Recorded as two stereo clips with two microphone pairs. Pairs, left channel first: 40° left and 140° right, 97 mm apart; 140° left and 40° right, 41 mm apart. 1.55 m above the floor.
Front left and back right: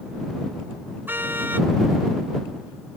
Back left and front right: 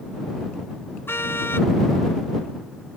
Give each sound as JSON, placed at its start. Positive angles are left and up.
{"t": 1.1, "sound": "a car horn", "azimuth_deg": 150}